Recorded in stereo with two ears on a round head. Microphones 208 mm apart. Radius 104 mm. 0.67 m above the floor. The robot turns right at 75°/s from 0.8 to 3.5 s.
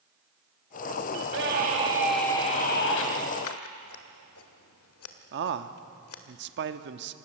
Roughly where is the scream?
Right.